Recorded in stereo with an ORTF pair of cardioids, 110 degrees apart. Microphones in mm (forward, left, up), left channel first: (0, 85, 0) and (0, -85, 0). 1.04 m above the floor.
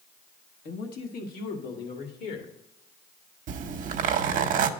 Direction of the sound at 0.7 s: 65° left.